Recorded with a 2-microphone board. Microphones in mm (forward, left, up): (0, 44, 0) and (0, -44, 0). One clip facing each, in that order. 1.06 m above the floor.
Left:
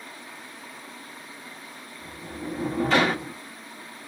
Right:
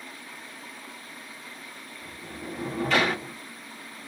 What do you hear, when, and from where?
2.0 s a sliding door: 30° left (ahead or behind), 1.1 m